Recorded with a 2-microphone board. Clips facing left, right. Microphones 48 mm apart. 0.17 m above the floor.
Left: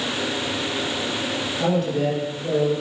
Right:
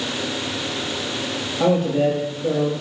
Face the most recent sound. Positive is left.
turn(degrees=-25)  # may be behind; listen again after turning